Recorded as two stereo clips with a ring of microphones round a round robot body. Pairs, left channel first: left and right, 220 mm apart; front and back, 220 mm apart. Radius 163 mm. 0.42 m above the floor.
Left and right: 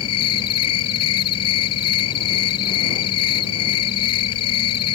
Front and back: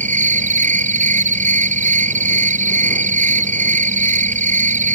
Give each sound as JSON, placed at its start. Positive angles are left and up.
{"t": 0.0, "sound": "an insect", "azimuth_deg": 125}